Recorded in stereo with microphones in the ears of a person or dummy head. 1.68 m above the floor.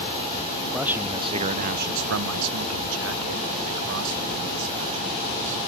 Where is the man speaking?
Centre (ahead or behind); by 5.6 s 70° right (ahead or behind).